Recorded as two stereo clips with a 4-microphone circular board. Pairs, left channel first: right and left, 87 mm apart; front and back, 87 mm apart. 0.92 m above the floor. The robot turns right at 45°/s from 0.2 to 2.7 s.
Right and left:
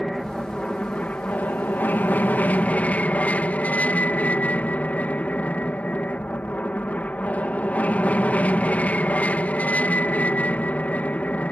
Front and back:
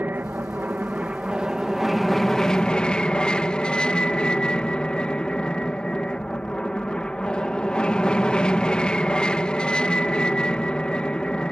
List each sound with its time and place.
0.0 s an aircraft: 170° right; by 11.5 s 60° right